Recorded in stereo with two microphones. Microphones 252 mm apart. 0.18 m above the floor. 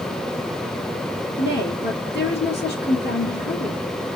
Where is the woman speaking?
40° left (ahead or behind), 2.5 m.